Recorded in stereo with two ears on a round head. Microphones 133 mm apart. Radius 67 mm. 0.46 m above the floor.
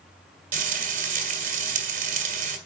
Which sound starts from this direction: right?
Frying, at 0.5 s.